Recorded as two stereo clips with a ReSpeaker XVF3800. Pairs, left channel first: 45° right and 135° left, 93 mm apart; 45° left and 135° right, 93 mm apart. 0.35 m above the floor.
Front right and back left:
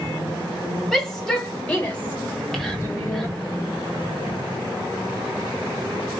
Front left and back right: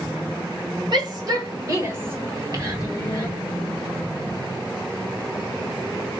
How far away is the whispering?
About 1.5 m.